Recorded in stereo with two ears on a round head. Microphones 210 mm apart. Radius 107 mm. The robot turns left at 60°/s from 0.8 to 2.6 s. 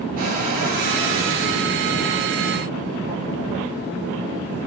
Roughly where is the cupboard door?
Behind right.